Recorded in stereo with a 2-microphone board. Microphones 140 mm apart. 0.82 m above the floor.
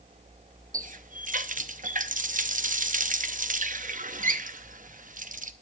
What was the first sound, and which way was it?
A running tap, 65° right (ahead or behind).